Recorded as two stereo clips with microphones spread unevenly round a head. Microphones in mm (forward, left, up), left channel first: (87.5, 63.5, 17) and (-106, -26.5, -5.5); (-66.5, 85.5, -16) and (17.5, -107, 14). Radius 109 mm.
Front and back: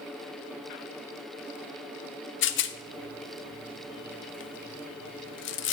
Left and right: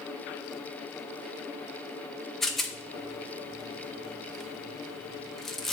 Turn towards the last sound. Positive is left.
turn(degrees=35)